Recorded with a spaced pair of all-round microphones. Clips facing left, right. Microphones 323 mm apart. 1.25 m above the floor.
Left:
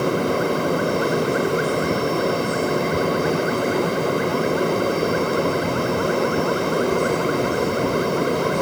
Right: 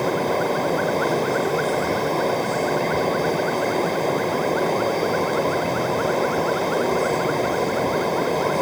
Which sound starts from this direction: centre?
A fan, at 0.0 s.